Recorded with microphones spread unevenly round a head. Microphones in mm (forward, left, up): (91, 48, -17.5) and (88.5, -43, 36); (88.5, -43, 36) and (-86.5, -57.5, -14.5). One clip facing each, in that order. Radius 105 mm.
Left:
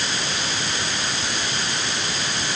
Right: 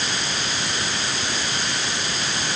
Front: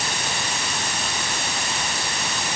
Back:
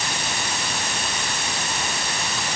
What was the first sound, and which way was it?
Only background noise.